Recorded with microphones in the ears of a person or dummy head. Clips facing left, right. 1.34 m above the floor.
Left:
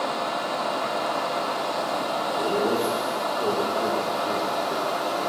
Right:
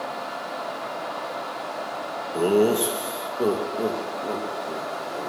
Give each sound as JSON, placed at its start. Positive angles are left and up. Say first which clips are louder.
{"t": 2.3, "sound": "laughter", "louder": "right 6 dB", "side_deg": -55, "distance_m": 1.8}